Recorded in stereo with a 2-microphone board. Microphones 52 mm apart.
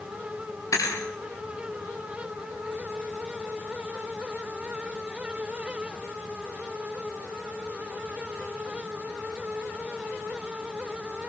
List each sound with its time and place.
0.7 s a thud: 80° left, 7 m